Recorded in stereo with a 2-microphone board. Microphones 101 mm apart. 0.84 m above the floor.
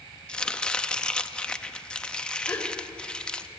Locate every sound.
0.3 s chopping: 10° left (ahead or behind), 0.7 m
2.5 s a gasp: 25° left (ahead or behind), 2 m